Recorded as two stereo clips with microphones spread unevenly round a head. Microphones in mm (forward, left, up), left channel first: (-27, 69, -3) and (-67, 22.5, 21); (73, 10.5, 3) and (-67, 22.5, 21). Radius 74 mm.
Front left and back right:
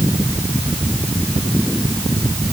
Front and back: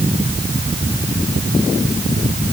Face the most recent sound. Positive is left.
No sound to turn to.